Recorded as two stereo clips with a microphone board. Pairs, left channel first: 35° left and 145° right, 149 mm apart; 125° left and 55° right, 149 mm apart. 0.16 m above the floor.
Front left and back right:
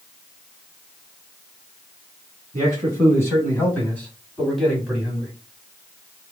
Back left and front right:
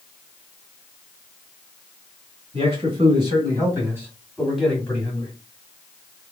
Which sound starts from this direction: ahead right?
A man speaking, at 2.5 s.